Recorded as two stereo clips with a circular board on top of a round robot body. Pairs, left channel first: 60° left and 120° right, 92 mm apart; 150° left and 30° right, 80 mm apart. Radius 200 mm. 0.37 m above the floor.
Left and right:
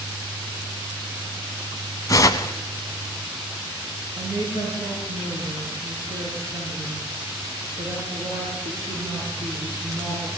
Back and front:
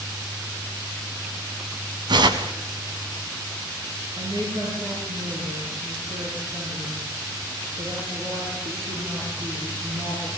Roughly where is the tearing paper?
Ahead.